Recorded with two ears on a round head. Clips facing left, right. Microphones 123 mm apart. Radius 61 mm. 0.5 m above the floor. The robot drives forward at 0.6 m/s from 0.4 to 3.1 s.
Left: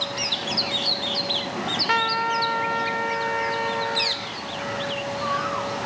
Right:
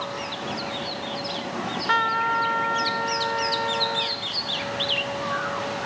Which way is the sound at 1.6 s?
10° left (ahead or behind).